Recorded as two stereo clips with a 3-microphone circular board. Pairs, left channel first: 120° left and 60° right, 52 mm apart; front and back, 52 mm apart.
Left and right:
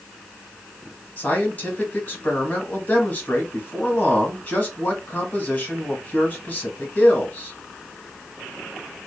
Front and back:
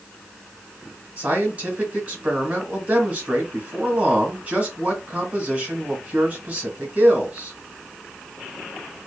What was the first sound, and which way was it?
A man speaking, 155° left.